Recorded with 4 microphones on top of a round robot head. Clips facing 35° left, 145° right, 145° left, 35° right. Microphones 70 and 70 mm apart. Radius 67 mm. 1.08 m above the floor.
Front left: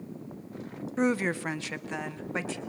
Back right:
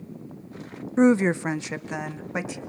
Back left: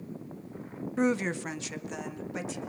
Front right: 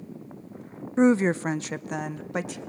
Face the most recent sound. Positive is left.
turn(degrees=-70)